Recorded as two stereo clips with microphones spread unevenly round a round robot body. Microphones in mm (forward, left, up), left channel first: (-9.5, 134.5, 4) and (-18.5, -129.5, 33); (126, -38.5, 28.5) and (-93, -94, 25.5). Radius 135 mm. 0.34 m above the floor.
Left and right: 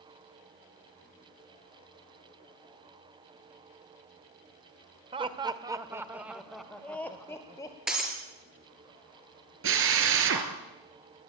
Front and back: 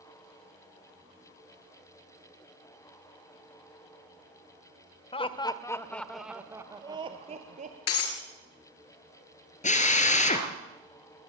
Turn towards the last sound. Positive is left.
turn(degrees=-45)